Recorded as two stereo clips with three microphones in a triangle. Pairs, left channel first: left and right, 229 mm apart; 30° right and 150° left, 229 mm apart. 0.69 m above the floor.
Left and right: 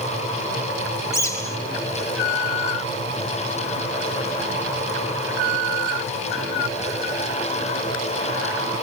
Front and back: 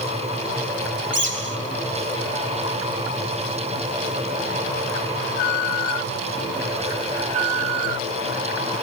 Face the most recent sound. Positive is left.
turn(degrees=165)